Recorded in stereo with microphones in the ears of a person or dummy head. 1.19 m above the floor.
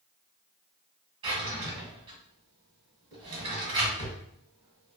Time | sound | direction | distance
1.2 | a drawer | 30° right (ahead or behind) | 1.3 m